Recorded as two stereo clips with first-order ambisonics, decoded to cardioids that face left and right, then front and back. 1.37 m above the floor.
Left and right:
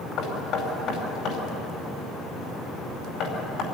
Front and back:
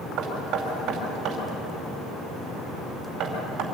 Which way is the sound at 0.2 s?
135° left.